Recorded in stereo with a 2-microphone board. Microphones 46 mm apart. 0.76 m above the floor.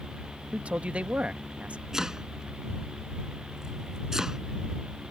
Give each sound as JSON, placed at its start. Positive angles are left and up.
{"t": 0.5, "sound": "a man speaking", "side_deg": -30}
{"t": 1.9, "sound": "chopping", "side_deg": -10}